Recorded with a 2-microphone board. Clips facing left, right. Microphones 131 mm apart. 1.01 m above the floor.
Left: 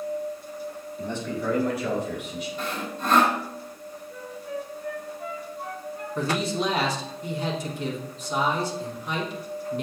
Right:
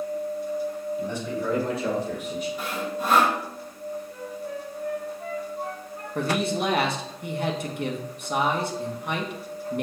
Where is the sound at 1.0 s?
10° right (ahead or behind), 3.5 m; by 2.5 s 50° right (ahead or behind), 3 m.